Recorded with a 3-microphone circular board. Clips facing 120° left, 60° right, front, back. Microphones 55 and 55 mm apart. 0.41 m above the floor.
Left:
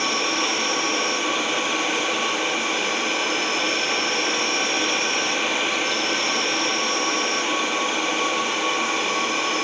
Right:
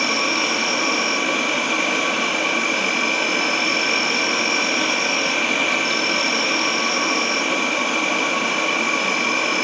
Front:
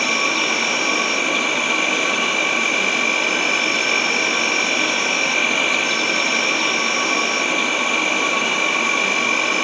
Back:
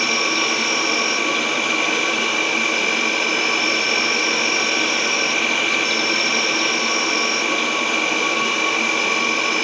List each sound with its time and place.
0.0 s an insect: 80° right, 1.6 m